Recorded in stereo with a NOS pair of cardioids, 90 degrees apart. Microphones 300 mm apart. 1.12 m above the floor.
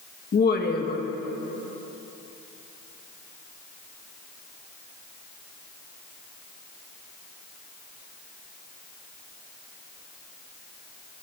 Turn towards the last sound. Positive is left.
turn(degrees=30)